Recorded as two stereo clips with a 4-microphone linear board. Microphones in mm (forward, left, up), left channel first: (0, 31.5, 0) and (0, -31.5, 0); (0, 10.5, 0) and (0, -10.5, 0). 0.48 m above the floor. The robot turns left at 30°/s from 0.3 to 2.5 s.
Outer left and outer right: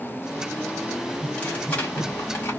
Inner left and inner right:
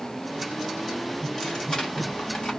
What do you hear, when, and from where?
1.2 s tearing paper: 160° left, 1.8 m; by 2.6 s 120° left, 1.8 m